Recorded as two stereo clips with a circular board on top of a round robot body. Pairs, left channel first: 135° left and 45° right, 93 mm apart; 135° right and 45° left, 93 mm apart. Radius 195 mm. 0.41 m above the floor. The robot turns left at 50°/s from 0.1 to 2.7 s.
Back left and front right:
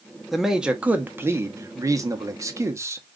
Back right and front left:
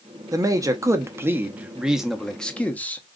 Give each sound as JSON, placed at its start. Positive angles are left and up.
{"t": 0.3, "sound": "a man speaking", "azimuth_deg": 45, "distance_m": 1.1}